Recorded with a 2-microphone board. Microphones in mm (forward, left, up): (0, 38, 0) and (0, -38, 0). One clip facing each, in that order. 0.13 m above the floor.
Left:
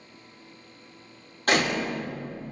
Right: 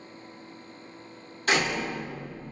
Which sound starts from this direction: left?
A door slam, at 1.5 s.